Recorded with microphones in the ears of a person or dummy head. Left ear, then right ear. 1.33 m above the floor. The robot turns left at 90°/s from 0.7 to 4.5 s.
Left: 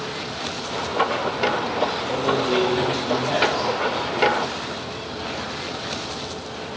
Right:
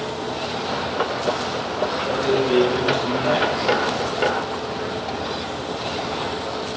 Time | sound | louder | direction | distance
2.1 | a man speaking | right 4 dB | 50° right | 2.0 m